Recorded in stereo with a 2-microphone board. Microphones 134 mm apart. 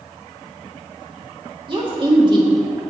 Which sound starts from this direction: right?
A woman speaking, at 1.7 s.